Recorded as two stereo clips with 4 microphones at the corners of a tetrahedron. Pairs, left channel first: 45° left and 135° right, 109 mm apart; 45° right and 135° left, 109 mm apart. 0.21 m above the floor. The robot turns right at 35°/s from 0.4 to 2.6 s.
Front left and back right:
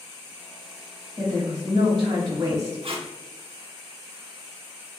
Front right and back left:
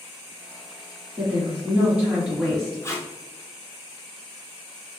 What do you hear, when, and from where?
1.2 s a woman speaking: 170° right, 1.3 m; by 2.8 s 120° right, 1.3 m
2.8 s tape being pulled: 110° right, 0.7 m